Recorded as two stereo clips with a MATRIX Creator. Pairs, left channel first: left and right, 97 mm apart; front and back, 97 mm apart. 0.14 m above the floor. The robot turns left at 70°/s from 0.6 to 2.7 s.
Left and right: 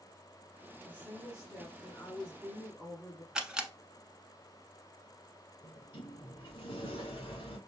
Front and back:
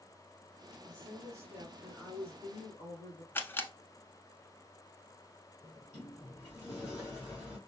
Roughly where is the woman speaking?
Behind.